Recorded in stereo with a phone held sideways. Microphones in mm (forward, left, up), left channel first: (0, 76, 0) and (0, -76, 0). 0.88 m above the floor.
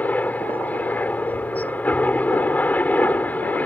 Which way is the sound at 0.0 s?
10° left (ahead or behind).